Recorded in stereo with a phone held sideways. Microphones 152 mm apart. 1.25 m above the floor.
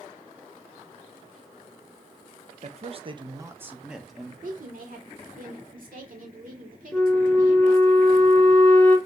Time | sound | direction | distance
2.6 | a man speaking | 50° right (ahead or behind) | 0.6 m
4.4 | a woman speaking | 65° right (ahead or behind) | 1.2 m
6.9 | a flute | 10° left (ahead or behind) | 0.6 m